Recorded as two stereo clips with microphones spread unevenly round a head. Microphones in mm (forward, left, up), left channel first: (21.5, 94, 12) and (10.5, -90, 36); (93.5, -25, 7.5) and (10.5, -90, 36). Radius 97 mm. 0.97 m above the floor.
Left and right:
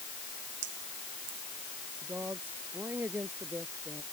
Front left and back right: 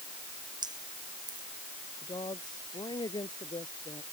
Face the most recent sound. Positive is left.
turn(degrees=-15)